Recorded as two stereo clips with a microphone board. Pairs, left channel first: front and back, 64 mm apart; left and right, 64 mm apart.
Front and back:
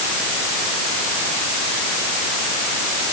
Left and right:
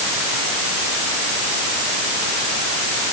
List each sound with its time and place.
Only background noise.